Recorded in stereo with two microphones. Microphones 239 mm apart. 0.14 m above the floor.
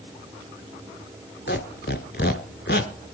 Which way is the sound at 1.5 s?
45° left (ahead or behind).